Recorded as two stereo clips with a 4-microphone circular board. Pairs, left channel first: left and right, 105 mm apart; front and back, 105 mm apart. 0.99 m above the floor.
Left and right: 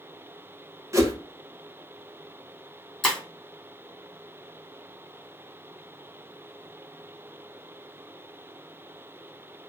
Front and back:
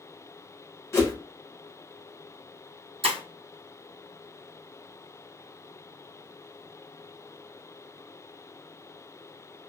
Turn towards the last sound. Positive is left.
turn(degrees=175)